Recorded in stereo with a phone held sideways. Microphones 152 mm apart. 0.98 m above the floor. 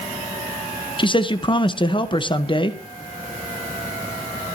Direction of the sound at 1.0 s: 35° left (ahead or behind).